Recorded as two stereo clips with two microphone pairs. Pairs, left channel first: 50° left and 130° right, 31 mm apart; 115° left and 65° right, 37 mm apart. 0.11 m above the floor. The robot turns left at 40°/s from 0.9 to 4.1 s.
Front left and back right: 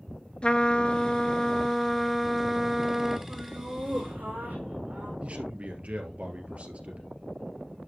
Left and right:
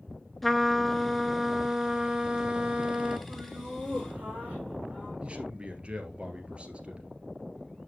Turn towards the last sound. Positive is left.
turn(degrees=-110)